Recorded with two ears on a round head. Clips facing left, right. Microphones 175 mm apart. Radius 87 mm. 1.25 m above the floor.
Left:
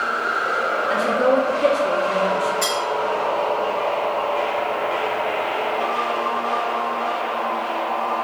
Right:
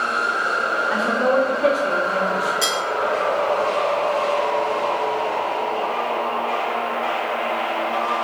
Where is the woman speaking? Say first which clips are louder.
Left 1 dB; 35° left (ahead or behind), 1.1 m.